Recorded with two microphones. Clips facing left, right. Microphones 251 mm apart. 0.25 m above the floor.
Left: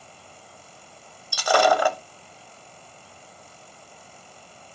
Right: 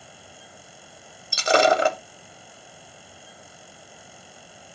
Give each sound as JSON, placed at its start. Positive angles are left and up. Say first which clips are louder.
{"t": 1.3, "sound": "breaking glass", "louder": "right 1 dB", "side_deg": -25, "distance_m": 0.7}